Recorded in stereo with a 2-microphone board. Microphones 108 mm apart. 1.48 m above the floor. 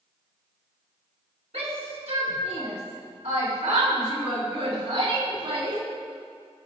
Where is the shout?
80° right, 5.5 m; by 5.8 s 65° right (ahead or behind), 5.5 m.